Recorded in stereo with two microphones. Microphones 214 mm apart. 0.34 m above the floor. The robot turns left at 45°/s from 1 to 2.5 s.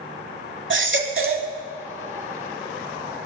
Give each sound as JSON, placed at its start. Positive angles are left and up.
{"t": 0.7, "sound": "a baby crying", "side_deg": -65, "distance_m": 0.8}